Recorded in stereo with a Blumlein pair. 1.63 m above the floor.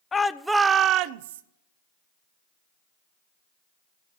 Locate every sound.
0.1 s a shout: 15° left, 0.5 m; by 1.4 s 60° right, 0.6 m